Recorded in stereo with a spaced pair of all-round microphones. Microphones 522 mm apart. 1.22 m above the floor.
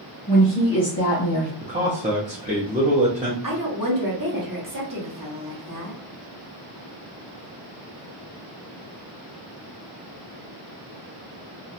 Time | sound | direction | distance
0.3 | a woman speaking | 15° left (ahead or behind) | 1.1 m
1.6 | a man speaking | 15° right (ahead or behind) | 0.6 m
3.4 | a woman speaking | 35° right (ahead or behind) | 1.0 m